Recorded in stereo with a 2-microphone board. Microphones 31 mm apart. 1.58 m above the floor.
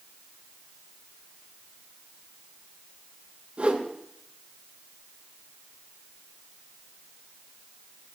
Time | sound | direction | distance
3.6 | a whoosh | 35° right (ahead or behind) | 8.5 m